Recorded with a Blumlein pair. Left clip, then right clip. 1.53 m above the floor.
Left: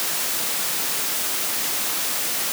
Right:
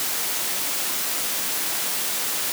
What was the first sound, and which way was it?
Only background noise.